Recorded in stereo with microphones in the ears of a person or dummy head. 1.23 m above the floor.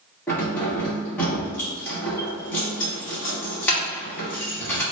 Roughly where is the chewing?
I don't hear chewing.